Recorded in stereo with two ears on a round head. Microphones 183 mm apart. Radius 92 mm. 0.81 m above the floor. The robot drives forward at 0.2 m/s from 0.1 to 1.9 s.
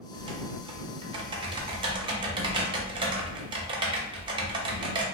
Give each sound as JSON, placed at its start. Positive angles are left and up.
{"t": 0.1, "sound": "typing on a keyboard", "side_deg": -25, "distance_m": 0.7}